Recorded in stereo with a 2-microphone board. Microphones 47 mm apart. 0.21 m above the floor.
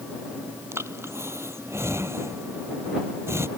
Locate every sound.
0.7 s breathing: 65° right (ahead or behind)